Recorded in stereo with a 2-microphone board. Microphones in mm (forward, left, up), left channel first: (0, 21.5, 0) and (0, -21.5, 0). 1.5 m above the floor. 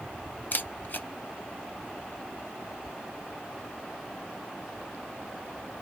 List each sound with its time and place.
0.5 s a camera shutter: 45° left (ahead or behind), 0.6 m